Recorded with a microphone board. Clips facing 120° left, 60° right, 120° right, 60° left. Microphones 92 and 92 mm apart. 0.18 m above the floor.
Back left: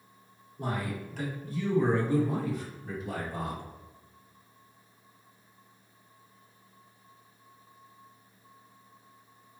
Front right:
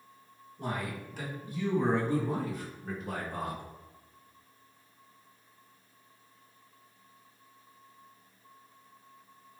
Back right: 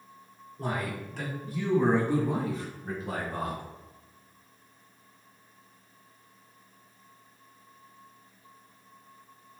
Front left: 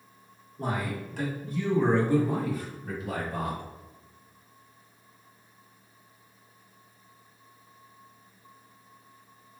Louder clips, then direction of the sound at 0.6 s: Back left 2 dB, front left 1 dB; 75° left.